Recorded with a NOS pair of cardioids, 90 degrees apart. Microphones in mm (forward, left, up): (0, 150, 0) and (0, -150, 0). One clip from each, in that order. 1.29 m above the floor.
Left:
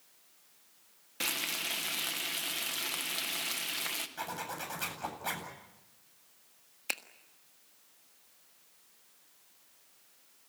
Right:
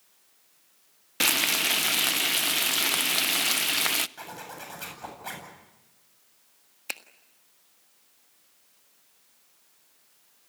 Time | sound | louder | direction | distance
1.2 | frying | right 10 dB | 50° right | 0.7 m
4.2 | a zipper | left 1 dB | 10° left | 8.5 m
6.9 | a finger snap | even | straight ahead | 1.5 m